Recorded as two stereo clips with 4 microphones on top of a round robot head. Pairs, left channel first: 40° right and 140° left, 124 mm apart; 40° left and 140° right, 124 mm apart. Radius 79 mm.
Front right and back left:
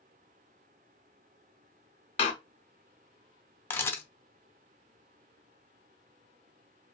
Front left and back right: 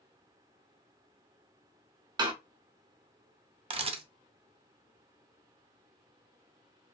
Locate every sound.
2.2 s a door slam: 80° right, 0.7 m
3.7 s a camera shutter: 110° right, 0.6 m